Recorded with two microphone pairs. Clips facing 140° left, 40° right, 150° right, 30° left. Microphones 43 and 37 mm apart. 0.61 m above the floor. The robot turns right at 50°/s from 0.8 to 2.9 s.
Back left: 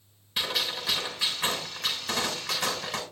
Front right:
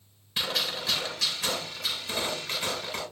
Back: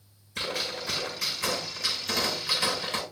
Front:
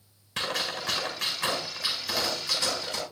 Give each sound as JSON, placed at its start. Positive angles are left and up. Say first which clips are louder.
{"t": 0.4, "sound": "a gunshot", "louder": "even, front 2 dB", "azimuth_deg": 50, "distance_m": 6.5}